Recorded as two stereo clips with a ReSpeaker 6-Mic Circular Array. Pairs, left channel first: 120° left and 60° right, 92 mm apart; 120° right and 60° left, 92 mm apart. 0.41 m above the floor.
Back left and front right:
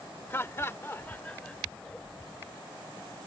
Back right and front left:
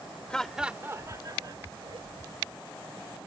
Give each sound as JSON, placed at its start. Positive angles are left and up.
{"t": 0.3, "sound": "laughter", "azimuth_deg": 165}